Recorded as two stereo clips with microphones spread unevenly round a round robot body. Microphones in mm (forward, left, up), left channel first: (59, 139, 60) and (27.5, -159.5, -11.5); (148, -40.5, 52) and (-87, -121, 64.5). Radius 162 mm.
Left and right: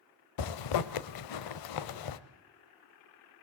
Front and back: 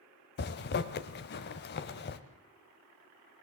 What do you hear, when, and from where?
0.4 s a zipper: 70° left, 1.0 m